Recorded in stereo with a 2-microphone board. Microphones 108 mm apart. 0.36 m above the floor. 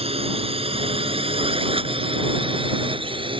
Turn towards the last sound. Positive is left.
turn(degrees=-50)  # may be behind; listen again after turning